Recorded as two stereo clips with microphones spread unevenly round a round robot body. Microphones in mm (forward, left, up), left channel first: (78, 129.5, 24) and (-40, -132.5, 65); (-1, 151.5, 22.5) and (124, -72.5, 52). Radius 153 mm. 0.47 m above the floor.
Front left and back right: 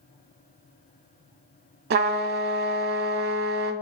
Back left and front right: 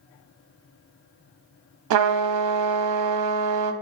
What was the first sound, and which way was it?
A trumpet, 55° right.